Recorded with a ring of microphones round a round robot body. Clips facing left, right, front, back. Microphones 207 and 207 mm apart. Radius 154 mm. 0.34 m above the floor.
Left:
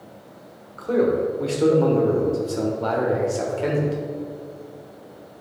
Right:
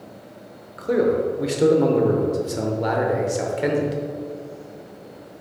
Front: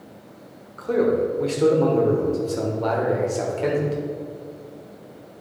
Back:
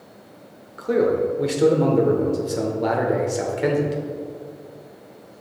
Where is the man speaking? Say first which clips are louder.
Even, back 1 dB; 130° right, 0.9 m.